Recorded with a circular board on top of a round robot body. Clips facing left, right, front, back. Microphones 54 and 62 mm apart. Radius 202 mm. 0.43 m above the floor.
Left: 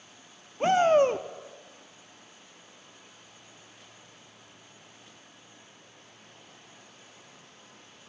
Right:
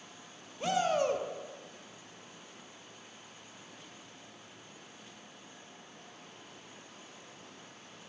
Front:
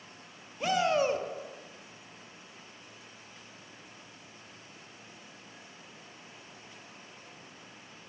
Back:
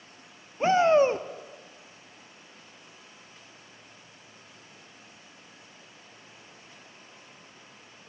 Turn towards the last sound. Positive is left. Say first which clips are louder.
# left 9 dB, back 7 dB
turn(degrees=130)